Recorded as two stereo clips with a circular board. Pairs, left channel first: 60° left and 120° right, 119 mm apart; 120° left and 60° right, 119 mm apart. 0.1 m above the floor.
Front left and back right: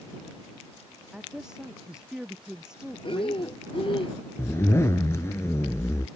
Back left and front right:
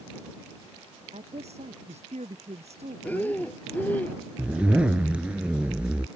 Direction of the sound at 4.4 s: 15° left.